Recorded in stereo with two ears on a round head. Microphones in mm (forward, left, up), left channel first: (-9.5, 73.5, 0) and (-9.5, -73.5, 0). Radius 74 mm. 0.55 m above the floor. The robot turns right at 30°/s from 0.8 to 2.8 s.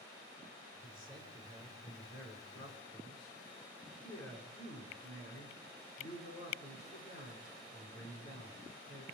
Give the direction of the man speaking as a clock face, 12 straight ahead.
11 o'clock.